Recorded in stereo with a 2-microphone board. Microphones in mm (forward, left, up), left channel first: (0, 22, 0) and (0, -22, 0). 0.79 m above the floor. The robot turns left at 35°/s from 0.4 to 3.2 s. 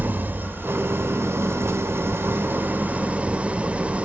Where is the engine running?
50° right, 1.4 m; by 4.1 s 150° right, 1.4 m.